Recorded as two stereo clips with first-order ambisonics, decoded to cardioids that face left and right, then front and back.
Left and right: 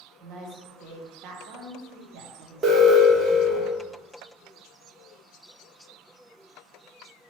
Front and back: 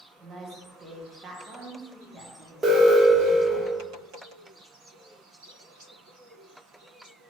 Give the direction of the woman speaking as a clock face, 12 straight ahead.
4 o'clock.